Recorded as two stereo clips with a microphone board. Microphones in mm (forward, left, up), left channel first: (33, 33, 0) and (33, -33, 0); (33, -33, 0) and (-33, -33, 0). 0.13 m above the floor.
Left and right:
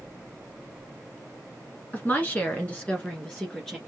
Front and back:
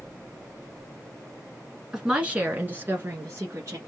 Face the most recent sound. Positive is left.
turn(degrees=165)